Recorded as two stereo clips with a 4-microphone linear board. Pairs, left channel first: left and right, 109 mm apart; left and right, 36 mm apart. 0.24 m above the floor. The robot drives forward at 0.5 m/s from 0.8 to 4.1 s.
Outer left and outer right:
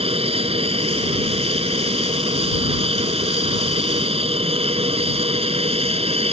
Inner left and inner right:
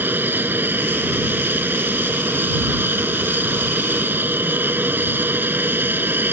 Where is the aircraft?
60° right (ahead or behind); by 6.3 s 65° right (ahead or behind).